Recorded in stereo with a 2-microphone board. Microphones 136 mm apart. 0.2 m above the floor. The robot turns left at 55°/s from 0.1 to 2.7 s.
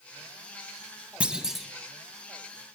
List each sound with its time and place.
1.2 s a clunk: 10° right (ahead or behind), 1.0 m; by 1.7 s centre (ahead or behind), 1.0 m